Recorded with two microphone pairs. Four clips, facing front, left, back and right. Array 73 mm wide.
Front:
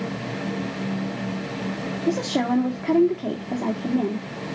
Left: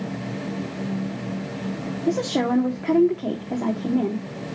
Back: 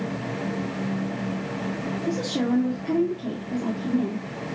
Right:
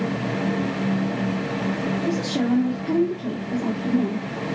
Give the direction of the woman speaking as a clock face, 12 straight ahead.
11 o'clock.